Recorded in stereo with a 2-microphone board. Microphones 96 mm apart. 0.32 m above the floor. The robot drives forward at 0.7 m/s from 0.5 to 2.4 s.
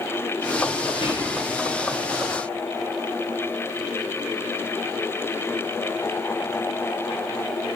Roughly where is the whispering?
Left.